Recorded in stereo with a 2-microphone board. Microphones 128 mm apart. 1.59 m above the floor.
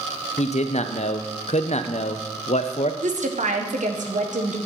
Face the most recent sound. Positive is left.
turn(degrees=-80)